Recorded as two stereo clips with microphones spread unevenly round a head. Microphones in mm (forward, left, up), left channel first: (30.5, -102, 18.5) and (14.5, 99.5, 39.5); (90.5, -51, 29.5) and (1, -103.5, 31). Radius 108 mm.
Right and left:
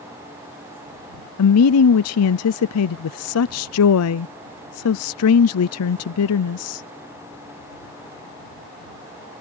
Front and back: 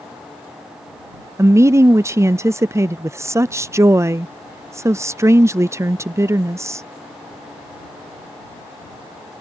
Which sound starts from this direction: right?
A woman speaking, at 1.4 s.